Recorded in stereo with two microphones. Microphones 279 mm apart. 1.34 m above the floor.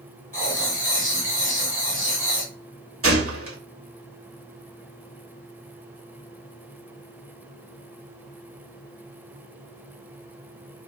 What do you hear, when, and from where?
0.3 s writing: 30° left (ahead or behind), 2 m
3.0 s a gunshot: 50° right (ahead or behind), 1.2 m